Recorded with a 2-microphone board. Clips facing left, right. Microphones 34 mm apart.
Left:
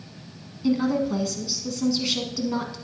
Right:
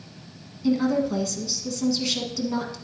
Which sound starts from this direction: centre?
A woman speaking, at 0.6 s.